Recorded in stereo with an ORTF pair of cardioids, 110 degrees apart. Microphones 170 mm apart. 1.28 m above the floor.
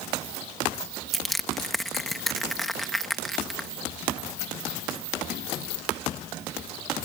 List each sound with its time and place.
1.1 s crushing: straight ahead